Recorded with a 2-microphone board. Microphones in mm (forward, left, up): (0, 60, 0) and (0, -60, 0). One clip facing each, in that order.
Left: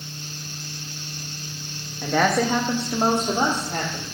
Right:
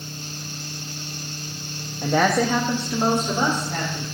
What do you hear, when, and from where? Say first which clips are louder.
2.0 s a woman speaking: right 1 dB; 20° right (ahead or behind), 0.9 m; by 4.0 s 40° left (ahead or behind), 3 m